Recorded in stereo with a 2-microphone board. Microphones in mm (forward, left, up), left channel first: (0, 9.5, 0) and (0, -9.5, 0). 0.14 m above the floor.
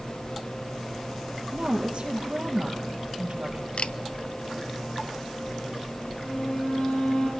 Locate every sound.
1.5 s a woman speaking: 65° right (ahead or behind), 3.5 m
3.8 s a camera shutter: 65° left (ahead or behind), 0.7 m
6.2 s a violin: 70° left (ahead or behind), 7.5 m